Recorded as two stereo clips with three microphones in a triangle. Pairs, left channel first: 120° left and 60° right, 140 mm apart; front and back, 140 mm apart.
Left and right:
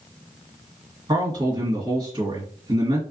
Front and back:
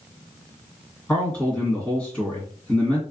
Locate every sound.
1.1 s a man speaking: 75° right, 1.6 m